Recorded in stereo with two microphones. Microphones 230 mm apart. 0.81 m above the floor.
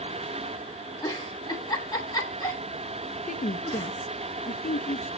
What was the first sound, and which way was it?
A giggle, 15° left (ahead or behind).